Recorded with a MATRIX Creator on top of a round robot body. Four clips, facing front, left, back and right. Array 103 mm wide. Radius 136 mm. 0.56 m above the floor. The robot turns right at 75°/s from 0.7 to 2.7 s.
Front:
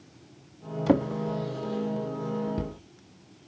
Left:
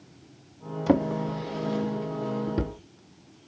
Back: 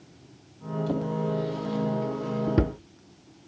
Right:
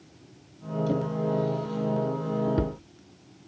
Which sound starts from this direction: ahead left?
A drawer, at 0.9 s.